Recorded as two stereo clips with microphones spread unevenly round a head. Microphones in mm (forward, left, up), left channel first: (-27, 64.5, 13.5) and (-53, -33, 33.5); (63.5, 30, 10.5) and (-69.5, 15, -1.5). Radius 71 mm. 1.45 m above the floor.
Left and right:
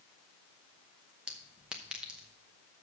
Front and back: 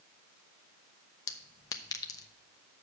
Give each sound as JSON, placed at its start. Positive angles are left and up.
{"t": 1.3, "sound": "a clink", "azimuth_deg": -40, "distance_m": 0.6}